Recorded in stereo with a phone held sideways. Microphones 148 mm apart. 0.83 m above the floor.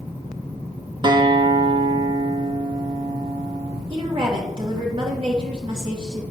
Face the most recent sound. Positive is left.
turn(degrees=-40)  # may be behind; listen again after turning